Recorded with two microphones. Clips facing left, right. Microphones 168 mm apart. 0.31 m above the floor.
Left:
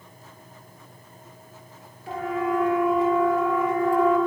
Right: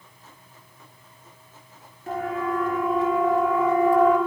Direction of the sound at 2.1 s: 45° right (ahead or behind).